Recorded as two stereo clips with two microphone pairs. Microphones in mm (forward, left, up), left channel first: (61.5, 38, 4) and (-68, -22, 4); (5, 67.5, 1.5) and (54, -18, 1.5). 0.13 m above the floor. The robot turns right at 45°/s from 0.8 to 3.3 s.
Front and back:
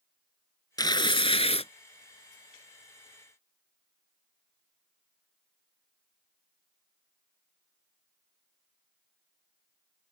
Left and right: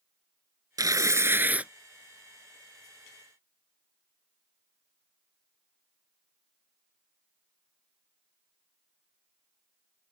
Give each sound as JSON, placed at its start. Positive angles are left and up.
{"t": 0.8, "sound": "tearing paper", "azimuth_deg": -25}